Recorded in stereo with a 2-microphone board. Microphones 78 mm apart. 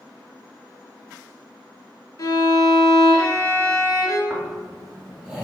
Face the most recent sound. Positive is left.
turn(degrees=-15)  # may be behind; listen again after turning